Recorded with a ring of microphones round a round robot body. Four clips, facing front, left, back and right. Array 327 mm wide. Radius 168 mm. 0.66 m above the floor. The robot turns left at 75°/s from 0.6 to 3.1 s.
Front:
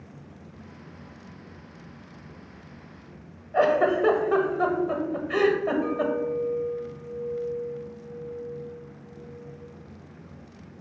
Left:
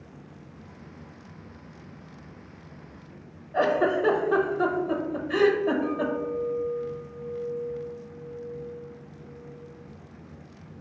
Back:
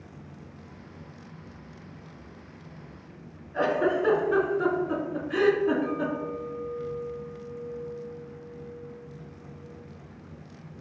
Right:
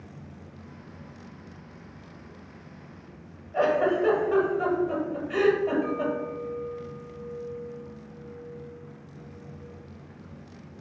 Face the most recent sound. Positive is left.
turn(degrees=-25)